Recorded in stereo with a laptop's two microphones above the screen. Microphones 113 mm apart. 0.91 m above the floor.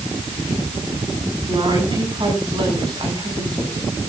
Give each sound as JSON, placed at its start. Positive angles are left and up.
{"t": 1.5, "sound": "a woman speaking", "side_deg": -40, "distance_m": 7.5}